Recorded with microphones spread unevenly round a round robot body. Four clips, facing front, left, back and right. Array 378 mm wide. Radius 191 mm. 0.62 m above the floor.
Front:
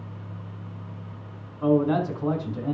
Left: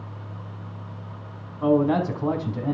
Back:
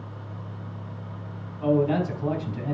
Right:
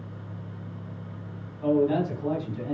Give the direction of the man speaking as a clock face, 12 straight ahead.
9 o'clock.